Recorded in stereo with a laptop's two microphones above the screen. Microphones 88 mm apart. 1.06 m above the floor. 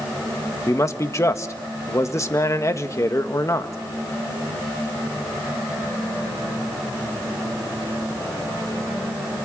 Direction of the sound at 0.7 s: 35° left (ahead or behind).